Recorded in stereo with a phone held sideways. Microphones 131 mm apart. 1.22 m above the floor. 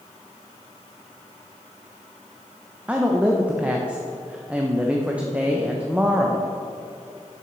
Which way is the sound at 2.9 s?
10° right (ahead or behind).